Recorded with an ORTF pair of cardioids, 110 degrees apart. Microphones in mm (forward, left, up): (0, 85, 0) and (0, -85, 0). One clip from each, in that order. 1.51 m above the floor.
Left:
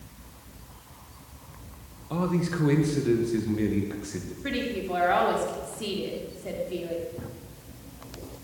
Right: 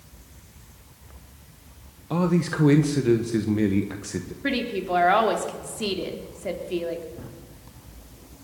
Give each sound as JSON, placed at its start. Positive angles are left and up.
{"t": 2.1, "sound": "a man speaking", "azimuth_deg": -30, "distance_m": 1.3}
{"t": 4.4, "sound": "a woman speaking", "azimuth_deg": -40, "distance_m": 3.0}
{"t": 7.2, "sound": "a drawer", "azimuth_deg": 10, "distance_m": 1.8}